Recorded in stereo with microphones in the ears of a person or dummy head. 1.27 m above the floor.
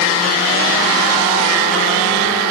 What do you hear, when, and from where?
Only background noise.